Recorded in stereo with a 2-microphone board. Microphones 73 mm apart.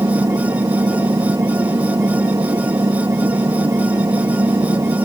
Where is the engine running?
50° right (ahead or behind).